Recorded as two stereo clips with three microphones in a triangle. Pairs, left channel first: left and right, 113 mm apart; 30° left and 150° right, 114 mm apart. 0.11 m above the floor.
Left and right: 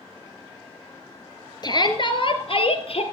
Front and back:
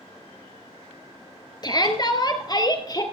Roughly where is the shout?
Ahead left.